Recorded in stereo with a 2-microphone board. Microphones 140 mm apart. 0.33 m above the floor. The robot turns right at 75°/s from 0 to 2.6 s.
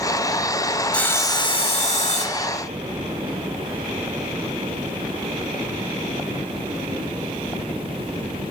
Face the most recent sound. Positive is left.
turn(degrees=135)